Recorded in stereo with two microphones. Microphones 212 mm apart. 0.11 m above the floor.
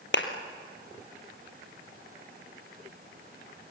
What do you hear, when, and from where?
0.1 s a clap: 65° left (ahead or behind), 2.0 m